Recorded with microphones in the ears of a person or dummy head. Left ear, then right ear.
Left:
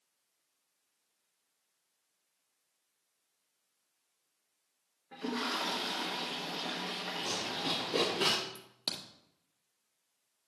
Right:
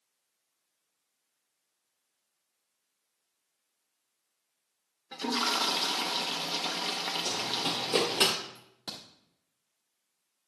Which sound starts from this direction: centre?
Running footsteps, at 7.2 s.